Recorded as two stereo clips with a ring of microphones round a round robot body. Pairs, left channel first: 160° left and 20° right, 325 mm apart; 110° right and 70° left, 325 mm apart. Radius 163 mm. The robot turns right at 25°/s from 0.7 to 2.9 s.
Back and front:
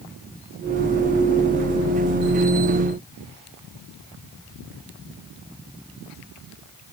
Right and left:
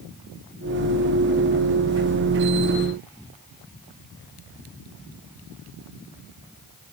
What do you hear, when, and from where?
Only background noise.